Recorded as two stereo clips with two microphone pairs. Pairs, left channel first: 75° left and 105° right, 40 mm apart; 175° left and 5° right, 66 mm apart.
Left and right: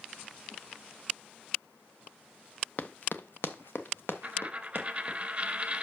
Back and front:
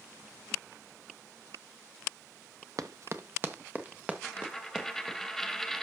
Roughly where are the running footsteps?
Ahead left.